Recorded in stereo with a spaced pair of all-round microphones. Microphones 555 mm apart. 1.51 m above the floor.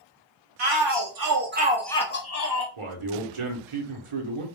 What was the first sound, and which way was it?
A shout, 55° right (ahead or behind).